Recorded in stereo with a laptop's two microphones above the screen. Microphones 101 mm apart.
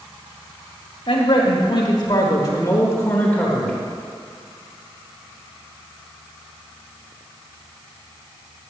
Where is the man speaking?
65° left (ahead or behind), 1.9 m; by 3.7 s 5° left (ahead or behind), 1.3 m.